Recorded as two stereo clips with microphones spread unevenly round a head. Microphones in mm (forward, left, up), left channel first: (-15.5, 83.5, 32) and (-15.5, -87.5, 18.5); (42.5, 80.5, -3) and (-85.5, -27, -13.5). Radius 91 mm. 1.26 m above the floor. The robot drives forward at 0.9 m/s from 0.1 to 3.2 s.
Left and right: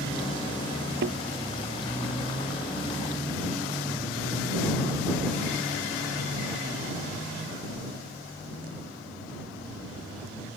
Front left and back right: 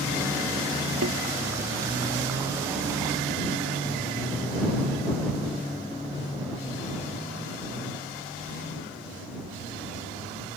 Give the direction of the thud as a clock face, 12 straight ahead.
4 o'clock.